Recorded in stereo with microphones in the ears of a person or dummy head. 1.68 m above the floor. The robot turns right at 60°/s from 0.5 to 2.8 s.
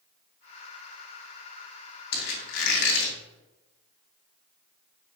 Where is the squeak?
70° left, 1.8 m; by 3.1 s 110° left, 1.8 m.